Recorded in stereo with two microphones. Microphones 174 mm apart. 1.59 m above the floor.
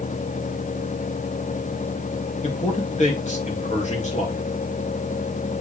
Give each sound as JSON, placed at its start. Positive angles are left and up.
{"t": 2.4, "sound": "a man speaking", "side_deg": 40, "distance_m": 1.9}